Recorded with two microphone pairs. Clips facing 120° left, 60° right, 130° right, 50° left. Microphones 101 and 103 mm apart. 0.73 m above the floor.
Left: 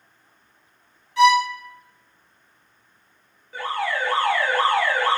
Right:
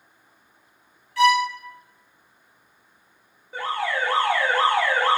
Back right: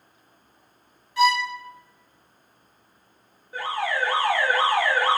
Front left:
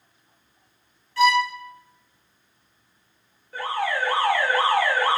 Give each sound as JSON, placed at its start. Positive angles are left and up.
{"t": 1.2, "sound": "a violin", "azimuth_deg": 170, "distance_m": 0.8}
{"t": 3.5, "sound": "an alarm", "azimuth_deg": -90, "distance_m": 1.3}